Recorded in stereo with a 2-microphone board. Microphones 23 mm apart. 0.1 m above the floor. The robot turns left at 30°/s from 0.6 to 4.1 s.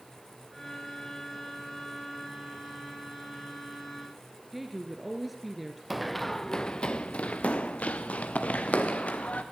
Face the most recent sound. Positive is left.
turn(degrees=80)